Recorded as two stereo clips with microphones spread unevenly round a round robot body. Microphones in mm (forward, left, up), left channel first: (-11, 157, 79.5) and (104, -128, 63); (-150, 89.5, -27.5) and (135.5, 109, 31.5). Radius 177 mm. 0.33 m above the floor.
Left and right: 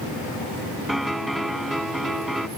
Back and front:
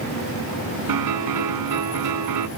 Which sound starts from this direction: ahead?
A piano, at 0.9 s.